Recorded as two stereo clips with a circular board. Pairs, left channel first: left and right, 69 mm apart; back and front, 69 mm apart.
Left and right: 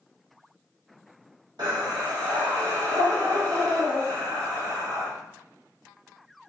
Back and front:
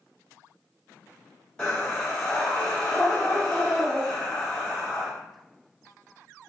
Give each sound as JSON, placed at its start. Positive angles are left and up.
{"t": 1.6, "sound": "breathing", "azimuth_deg": -105, "distance_m": 1.2}